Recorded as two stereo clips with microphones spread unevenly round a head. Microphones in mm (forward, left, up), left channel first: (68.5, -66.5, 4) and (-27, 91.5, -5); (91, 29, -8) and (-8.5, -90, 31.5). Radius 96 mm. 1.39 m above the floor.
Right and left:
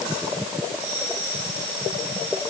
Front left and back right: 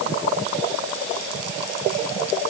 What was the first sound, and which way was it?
Only background noise.